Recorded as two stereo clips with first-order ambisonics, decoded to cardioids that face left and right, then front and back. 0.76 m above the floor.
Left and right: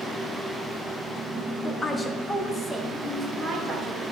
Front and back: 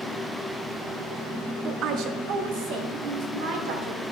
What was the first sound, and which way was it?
A woman speaking, 150° left.